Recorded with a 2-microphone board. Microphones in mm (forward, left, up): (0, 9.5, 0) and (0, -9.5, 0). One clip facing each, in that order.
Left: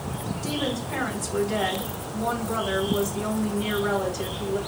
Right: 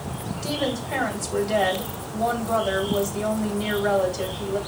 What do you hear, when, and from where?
0.4 s a woman speaking: 65° right (ahead or behind), 1.9 m